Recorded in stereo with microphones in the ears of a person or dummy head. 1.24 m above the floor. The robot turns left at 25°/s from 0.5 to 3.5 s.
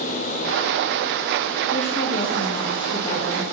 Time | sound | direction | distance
1.7 | a woman speaking | 60° left | 0.6 m